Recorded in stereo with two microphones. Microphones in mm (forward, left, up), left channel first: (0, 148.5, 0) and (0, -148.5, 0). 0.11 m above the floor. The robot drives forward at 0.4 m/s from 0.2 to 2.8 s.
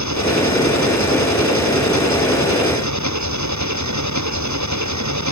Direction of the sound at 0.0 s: 75° right (ahead or behind).